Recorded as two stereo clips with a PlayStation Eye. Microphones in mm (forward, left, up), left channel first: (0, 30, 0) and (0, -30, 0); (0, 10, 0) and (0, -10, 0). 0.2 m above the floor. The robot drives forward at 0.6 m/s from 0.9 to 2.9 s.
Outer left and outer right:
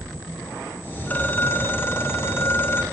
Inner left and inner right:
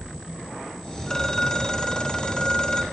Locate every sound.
1.1 s a phone ringing: 30° left (ahead or behind), 1.1 m; by 2.8 s 40° left (ahead or behind), 0.9 m